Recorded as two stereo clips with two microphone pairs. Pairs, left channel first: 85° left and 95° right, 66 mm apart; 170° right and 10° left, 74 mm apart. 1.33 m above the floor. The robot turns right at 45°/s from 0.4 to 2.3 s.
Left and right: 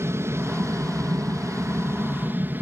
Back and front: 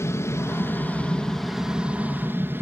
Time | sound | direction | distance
0.0 | an aircraft | 130° right | ?